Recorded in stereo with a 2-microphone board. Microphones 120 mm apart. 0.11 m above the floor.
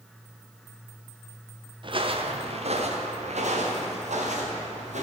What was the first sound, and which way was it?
Footsteps, 45° right (ahead or behind).